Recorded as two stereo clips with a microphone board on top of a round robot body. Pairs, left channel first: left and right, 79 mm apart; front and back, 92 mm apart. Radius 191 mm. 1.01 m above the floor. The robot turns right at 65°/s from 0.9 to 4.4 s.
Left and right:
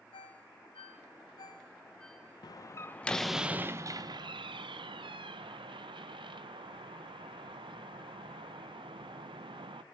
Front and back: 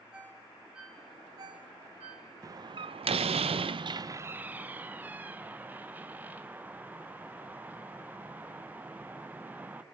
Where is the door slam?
125° left, 0.6 m; by 9.8 s 105° right, 0.6 m.